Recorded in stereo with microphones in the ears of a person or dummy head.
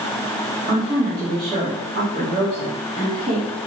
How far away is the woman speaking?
About 1.2 m.